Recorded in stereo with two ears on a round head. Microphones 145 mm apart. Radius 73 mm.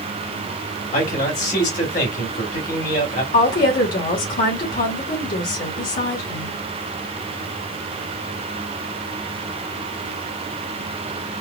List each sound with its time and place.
0.9 s a man speaking: 50° left (ahead or behind), 1.7 m
3.3 s a woman speaking: 60° left (ahead or behind), 2 m